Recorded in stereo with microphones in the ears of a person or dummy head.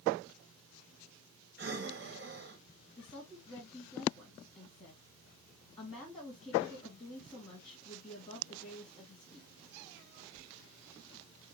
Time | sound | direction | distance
1.6 | breathing | 60° right (ahead or behind) | 1.3 m
3.0 | a woman speaking | 25° left (ahead or behind) | 2 m